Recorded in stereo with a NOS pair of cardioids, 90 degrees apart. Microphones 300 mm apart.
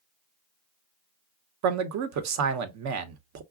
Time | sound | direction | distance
1.6 | a man speaking | 65° right | 0.8 m